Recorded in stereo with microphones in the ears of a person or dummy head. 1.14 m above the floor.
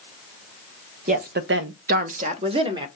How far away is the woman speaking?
About 0.6 m.